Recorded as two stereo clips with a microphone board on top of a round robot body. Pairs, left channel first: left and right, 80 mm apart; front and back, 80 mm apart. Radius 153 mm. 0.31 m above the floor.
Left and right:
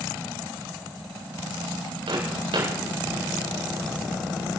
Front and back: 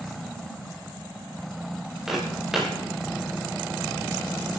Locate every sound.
2.1 s footsteps: 95° right, 8 m